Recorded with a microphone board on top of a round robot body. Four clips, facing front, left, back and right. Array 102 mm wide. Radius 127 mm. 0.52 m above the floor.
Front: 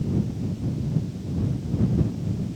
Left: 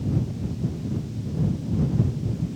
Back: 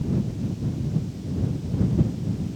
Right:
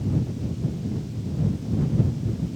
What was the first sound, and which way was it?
Only background noise.